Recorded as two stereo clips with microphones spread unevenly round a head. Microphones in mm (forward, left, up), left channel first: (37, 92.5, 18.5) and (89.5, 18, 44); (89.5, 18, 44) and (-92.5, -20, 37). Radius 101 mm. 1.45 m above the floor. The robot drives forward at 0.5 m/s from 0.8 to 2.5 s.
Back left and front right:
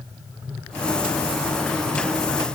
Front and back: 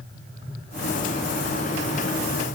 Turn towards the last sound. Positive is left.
No sound to turn to.